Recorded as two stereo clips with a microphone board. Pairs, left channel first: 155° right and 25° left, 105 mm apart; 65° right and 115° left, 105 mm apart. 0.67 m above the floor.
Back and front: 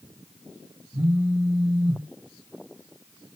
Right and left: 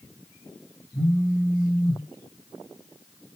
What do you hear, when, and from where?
0.9 s a phone buzzing: 35° right, 1.0 m